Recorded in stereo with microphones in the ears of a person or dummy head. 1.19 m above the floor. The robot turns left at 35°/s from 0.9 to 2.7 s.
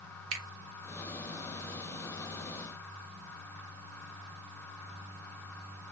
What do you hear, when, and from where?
0.3 s a finger snap: 85° right, 0.9 m